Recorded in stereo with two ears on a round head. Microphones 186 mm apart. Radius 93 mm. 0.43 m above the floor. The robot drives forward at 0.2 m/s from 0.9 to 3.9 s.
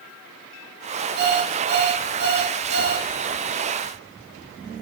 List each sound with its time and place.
1.2 s an alarm clock: 80° right, 4 m; by 3.1 s 85° right, 3.5 m